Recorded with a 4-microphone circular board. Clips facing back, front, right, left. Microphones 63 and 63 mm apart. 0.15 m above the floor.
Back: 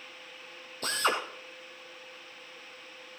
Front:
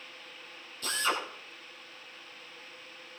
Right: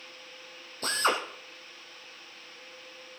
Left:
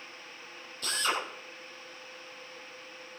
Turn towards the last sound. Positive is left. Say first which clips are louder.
# back 2 dB, right 4 dB
turn(degrees=-135)